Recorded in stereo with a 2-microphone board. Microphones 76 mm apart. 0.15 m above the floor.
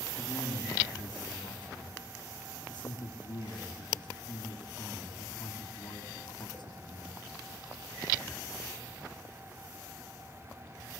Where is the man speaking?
70° left (ahead or behind), 8 m.